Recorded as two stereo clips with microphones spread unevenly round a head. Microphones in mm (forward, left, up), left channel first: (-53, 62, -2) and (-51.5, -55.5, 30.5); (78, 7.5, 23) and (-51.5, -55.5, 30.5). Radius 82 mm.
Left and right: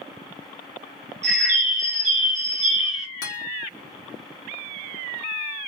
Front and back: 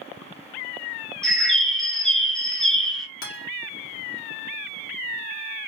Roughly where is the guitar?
Ahead left.